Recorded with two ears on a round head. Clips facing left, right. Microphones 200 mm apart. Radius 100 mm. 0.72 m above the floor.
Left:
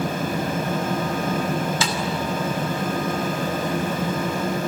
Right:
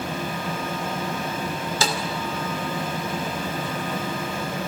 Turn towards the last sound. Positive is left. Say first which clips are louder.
# even
turn(degrees=-35)  # may be behind; listen again after turning